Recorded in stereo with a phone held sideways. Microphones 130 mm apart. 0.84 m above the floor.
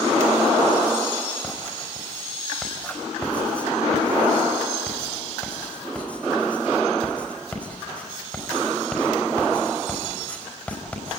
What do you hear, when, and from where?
1.4 s writing: 10° left (ahead or behind), 4.5 m